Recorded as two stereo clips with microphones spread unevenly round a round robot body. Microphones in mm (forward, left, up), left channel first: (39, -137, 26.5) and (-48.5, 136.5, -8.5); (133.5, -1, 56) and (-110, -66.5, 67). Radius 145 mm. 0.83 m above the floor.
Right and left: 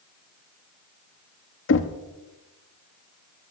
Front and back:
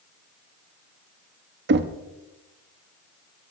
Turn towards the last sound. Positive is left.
turn(degrees=-120)